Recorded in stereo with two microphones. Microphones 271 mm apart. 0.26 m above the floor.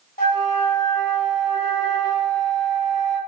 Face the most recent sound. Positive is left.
turn(degrees=35)  # may be behind; listen again after turning